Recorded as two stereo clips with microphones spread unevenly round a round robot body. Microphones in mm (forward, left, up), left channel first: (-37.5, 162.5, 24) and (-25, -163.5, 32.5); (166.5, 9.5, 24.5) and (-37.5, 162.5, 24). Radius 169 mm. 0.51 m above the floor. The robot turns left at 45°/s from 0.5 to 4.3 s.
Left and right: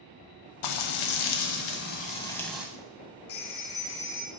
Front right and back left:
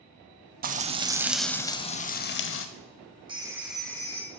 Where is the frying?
90° left, 0.5 m; by 2.7 s 5° right, 0.5 m.